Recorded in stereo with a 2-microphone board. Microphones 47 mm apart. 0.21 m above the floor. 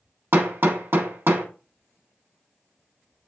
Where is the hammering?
50° right (ahead or behind), 0.9 m.